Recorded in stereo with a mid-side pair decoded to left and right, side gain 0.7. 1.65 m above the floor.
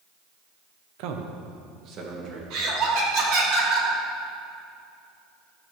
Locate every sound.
1.0 s a man speaking: 70° right, 0.9 m; by 2.4 s 45° right, 2.5 m
2.5 s laughter: 65° right, 3 m